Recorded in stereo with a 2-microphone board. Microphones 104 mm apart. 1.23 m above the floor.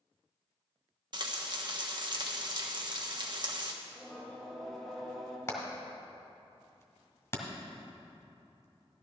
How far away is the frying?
About 1.2 m.